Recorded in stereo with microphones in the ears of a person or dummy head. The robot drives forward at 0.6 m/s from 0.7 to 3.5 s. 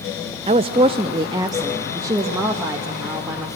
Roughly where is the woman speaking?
Right.